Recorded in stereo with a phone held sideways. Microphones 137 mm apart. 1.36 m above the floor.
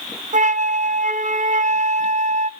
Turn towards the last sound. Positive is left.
turn(degrees=-65)  # may be behind; listen again after turning